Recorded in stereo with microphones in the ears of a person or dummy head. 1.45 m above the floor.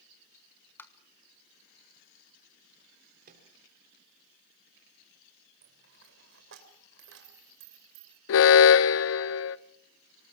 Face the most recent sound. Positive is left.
turn(degrees=70)  # may be behind; listen again after turning